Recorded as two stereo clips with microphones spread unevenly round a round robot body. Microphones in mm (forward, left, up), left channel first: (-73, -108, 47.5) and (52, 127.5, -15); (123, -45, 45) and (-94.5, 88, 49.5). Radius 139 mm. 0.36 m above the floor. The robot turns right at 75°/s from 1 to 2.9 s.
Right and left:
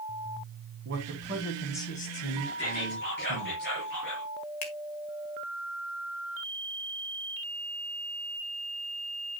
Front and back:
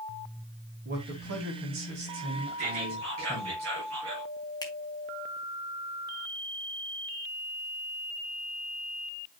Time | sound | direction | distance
0.8 | a man speaking | 100° left | 2.5 m
2.6 | whispering | 165° left | 6 m
4.6 | a finger snap | 100° right | 1.8 m